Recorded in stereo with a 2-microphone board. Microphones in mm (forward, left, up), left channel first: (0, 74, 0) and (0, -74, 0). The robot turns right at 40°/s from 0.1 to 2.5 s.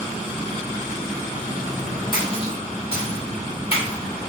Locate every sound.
2.1 s a splash: 30° left (ahead or behind), 1.0 m; by 4.3 s 40° left (ahead or behind), 1.0 m